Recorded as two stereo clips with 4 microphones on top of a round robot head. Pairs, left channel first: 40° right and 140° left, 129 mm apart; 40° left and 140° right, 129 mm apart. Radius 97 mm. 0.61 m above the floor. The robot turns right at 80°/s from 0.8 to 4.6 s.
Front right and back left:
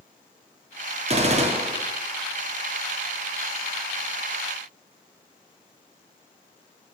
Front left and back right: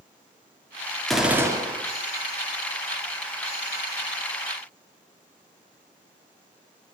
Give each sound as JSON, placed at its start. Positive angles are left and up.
{"t": 1.1, "sound": "a gunshot", "azimuth_deg": 125, "distance_m": 2.0}